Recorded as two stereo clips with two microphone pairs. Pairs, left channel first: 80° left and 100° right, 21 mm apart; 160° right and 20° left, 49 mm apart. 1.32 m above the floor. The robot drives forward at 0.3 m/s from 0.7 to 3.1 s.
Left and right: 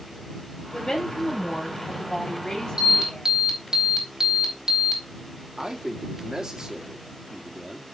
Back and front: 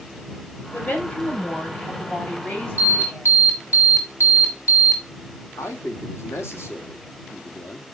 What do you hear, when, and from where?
0.7 s a woman speaking: 140° left, 6 m; by 3.3 s 145° left, 6.5 m
2.8 s an alarm: 135° right, 4.5 m
5.6 s a man speaking: 145° right, 2 m